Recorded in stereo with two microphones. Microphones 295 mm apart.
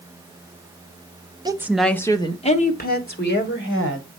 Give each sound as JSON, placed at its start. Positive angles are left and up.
{"t": 1.4, "sound": "a woman speaking", "side_deg": -15, "distance_m": 0.9}